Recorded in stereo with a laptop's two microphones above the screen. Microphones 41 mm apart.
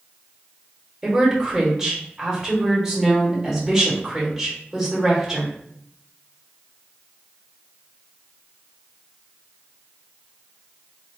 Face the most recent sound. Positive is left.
turn(degrees=-15)  # may be behind; listen again after turning